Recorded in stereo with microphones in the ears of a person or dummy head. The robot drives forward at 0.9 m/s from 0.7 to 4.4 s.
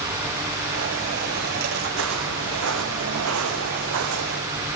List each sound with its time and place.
1.9 s footsteps: 75° right (ahead or behind), 5 m